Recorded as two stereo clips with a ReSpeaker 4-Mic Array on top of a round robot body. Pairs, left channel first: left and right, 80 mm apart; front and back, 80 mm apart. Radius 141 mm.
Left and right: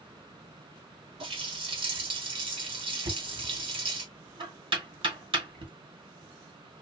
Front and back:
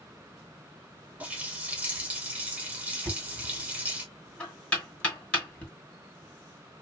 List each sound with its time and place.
1.2 s a running tap: 105° right, 1.5 m
3.0 s knocking: 75° right, 2 m